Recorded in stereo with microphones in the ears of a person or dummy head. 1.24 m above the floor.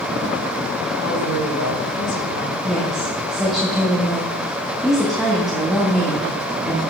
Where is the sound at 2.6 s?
Centre (ahead or behind), 1.7 m.